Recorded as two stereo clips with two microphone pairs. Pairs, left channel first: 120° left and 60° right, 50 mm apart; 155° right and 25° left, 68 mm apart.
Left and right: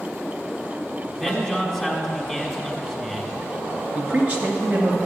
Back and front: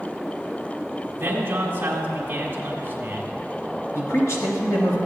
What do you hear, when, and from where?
1.2 s a man speaking: 30° left, 1.8 m
4.0 s a man speaking: 115° right, 2.5 m